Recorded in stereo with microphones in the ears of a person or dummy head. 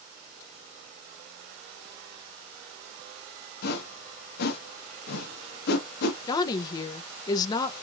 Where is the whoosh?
70° left (ahead or behind), 1.2 m.